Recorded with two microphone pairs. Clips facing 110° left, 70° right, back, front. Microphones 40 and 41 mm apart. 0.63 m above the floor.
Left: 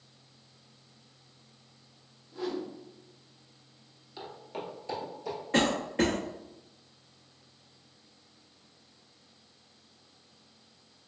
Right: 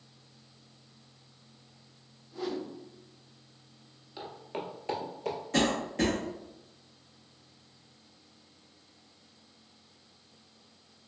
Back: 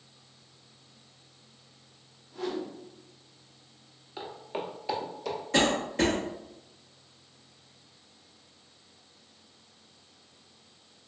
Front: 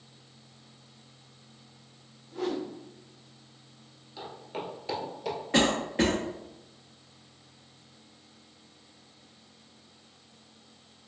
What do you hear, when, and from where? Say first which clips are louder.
2.3 s a whoosh: left 1 dB, front 2 dB; 20° left, 1.2 m
4.2 s footsteps: right 1 dB, back 2 dB; 155° right, 0.7 m; by 5.4 s 75° right, 0.9 m
5.5 s a cough: left 2 dB, even; 60° left, 0.8 m